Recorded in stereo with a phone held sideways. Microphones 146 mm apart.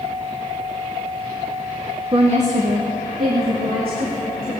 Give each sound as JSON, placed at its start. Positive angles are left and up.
{"t": 2.1, "sound": "a woman speaking", "side_deg": -35, "distance_m": 0.8}